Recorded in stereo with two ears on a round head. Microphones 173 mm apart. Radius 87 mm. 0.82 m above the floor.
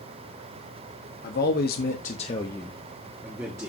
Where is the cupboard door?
I don't hear a cupboard door.